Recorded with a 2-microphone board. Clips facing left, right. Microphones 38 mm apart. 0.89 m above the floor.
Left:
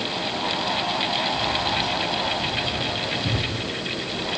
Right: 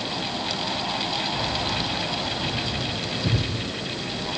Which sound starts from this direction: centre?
Keys jangling, at 1.3 s.